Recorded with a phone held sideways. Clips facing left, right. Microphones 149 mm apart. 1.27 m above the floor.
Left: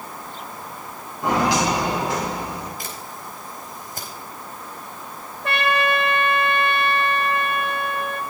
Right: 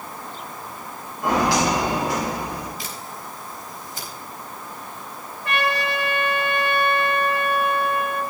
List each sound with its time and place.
1.2 s footsteps: 20° left (ahead or behind), 7.5 m; by 2.7 s 25° left (ahead or behind), 8.5 m
2.8 s a camera shutter: 55° left (ahead or behind), 4 m
5.4 s a trumpet: 65° left (ahead or behind), 1.9 m